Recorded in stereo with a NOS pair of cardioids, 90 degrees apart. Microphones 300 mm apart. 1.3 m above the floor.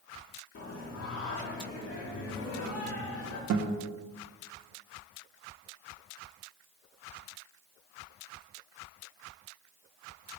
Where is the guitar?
70° right, 0.9 m.